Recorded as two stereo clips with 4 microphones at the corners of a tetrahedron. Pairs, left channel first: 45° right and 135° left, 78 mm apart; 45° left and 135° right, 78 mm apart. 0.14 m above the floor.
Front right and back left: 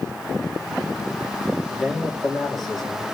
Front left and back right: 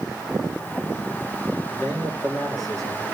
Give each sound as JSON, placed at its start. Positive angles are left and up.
{"t": 1.7, "sound": "a man speaking", "azimuth_deg": 45, "distance_m": 2.5}